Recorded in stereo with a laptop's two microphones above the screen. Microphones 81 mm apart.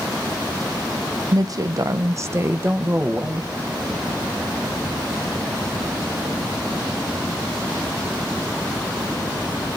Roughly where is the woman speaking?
Right.